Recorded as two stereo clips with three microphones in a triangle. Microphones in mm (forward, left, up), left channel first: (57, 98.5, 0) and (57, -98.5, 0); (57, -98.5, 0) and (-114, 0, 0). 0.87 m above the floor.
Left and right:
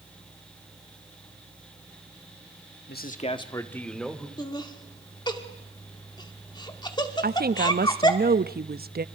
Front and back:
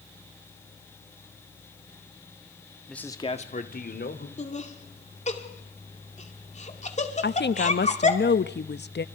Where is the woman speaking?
55° right, 0.7 m.